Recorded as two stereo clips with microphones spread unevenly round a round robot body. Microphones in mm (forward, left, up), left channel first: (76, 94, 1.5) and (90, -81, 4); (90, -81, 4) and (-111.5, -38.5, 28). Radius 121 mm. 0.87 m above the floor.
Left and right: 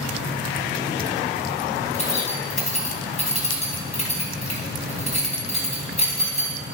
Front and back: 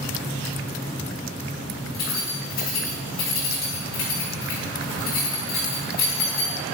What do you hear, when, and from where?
1.9 s keys jangling: 45° left, 4 m